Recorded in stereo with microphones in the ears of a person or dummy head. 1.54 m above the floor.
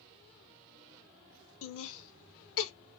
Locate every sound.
1.6 s laughter: 75° left (ahead or behind), 1.2 m